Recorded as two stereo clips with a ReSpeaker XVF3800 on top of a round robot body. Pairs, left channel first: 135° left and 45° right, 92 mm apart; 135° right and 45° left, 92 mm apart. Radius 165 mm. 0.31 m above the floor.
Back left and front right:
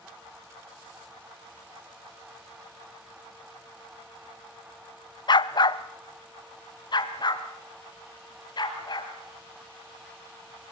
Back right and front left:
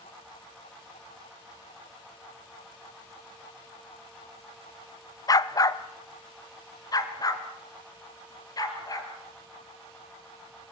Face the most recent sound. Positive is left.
turn(degrees=175)